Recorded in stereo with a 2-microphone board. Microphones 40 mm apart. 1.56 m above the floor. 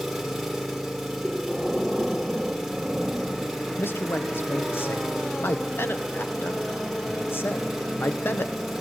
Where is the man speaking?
70° left (ahead or behind), 0.9 m.